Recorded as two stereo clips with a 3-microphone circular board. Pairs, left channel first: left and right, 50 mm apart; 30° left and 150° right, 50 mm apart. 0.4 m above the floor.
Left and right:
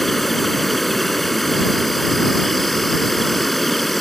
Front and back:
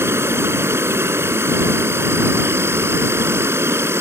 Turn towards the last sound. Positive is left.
turn(degrees=180)